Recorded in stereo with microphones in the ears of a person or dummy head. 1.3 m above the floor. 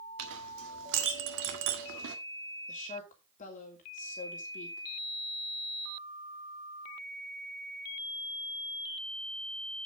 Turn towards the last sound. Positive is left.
turn(degrees=40)  # may be behind; listen again after turning